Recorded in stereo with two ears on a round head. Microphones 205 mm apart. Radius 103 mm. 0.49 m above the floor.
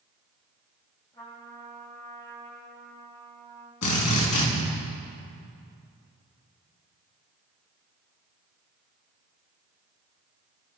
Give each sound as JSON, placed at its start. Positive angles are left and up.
{"t": 1.1, "sound": "a trumpet", "side_deg": 20, "distance_m": 6.5}
{"t": 3.8, "sound": "a drill", "side_deg": 80, "distance_m": 4.5}